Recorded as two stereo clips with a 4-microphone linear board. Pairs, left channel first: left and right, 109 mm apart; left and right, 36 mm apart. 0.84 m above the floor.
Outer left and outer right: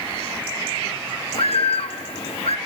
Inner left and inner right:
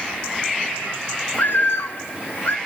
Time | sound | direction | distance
1.3 | a bird | 65° left (ahead or behind) | 0.8 m